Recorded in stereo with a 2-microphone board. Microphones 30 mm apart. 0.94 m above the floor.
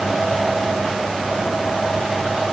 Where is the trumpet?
No trumpet in this recording.